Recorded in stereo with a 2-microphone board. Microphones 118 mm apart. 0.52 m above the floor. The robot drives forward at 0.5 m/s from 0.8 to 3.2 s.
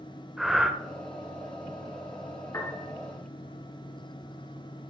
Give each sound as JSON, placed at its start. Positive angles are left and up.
{"t": 0.4, "sound": "breathing", "side_deg": -5, "distance_m": 1.1}
{"t": 2.5, "sound": "a piano", "side_deg": 25, "distance_m": 3.0}